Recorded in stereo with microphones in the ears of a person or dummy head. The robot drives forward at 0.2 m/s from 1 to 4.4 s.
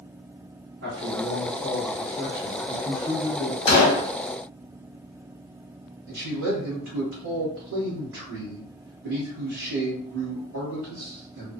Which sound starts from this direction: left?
A gunshot, at 3.7 s.